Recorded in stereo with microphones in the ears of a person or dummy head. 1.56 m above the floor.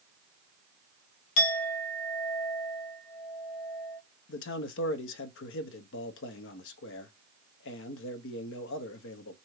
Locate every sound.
1.4 s a clink: 70° left (ahead or behind), 1.2 m
4.3 s a man speaking: 65° left (ahead or behind), 0.7 m